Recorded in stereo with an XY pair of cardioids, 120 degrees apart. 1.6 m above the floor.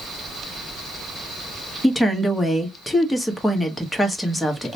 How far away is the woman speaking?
About 1.0 m.